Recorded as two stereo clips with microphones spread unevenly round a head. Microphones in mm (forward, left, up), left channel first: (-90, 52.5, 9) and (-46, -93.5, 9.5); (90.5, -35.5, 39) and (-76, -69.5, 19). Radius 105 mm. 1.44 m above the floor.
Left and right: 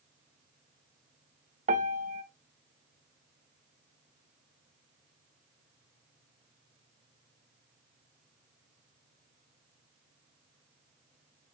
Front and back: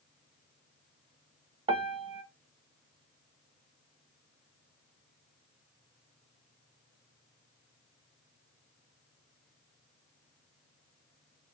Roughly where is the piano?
Right.